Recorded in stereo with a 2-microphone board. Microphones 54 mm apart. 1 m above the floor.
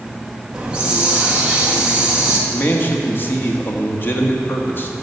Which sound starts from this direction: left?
A man speaking, at 2.5 s.